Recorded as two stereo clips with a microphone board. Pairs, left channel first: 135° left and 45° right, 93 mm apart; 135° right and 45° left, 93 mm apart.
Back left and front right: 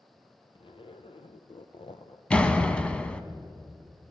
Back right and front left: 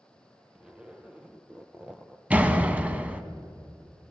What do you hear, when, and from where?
0.6 s a zipper: 125° left, 0.7 m
2.3 s a door slam: 80° left, 0.7 m